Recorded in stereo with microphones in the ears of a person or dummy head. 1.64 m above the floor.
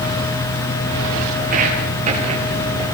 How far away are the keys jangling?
No keys jangling in this recording.